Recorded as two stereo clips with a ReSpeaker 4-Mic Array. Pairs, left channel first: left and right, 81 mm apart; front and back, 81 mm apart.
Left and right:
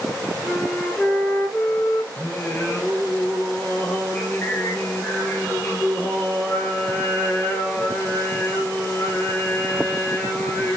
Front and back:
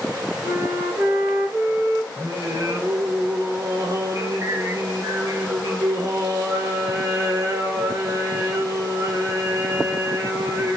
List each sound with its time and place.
0.4 s a flute: 155° left, 1.3 m
2.2 s singing: 145° left, 1.1 m